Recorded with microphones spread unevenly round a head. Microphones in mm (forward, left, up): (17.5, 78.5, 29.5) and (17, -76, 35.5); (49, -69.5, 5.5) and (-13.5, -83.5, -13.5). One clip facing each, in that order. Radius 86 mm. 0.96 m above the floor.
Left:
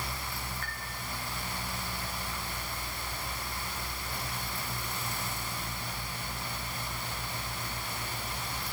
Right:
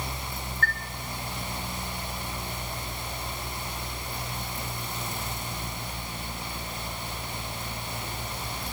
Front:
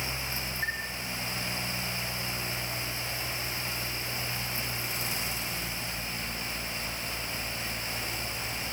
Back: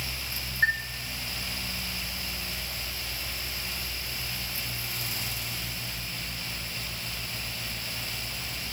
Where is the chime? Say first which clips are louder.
Right 10 dB, back 9 dB; straight behind, 1.1 m.